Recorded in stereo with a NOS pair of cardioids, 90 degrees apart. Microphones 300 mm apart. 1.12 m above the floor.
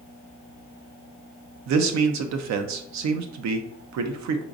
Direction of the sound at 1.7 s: 70° right.